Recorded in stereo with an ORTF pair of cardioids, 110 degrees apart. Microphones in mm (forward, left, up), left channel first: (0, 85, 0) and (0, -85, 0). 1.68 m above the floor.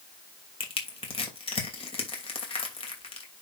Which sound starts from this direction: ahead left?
Crushing, at 0.6 s.